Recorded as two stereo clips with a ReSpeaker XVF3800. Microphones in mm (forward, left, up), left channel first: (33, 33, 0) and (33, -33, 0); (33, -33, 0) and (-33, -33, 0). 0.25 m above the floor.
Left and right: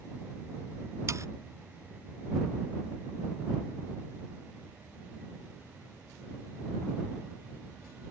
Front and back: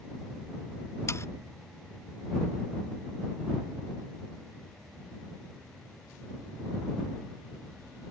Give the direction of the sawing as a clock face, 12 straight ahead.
2 o'clock.